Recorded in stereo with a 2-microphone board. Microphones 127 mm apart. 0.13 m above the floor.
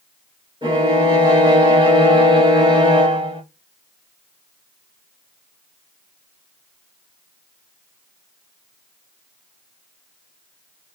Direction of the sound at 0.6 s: 35° right (ahead or behind).